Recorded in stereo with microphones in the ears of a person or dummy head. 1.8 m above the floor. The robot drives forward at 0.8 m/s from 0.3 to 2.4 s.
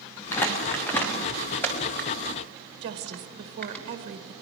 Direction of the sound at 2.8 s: 35° right (ahead or behind).